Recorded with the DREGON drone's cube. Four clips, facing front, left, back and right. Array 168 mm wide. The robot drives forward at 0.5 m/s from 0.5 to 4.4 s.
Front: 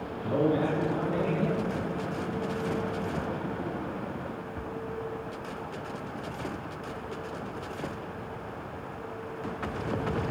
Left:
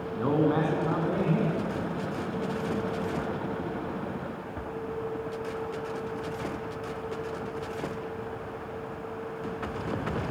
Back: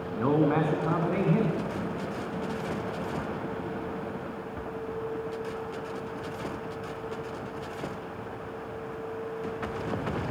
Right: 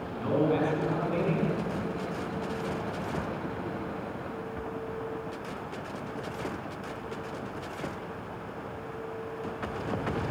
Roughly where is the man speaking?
Behind left.